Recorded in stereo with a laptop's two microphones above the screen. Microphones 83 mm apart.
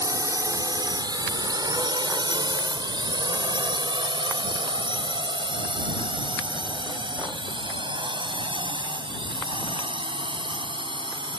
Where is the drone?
45° right (ahead or behind); by 11.4 s 85° right.